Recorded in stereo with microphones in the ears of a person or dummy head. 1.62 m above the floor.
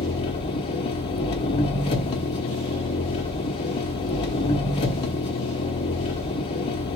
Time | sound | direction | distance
0.0 | an engine running | 25° left (ahead or behind) | 0.8 m